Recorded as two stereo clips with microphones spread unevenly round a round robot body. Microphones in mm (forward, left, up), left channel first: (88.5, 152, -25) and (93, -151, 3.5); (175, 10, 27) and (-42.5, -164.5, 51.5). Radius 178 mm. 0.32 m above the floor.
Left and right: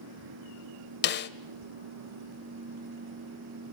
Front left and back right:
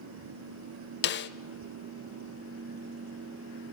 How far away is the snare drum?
About 0.6 m.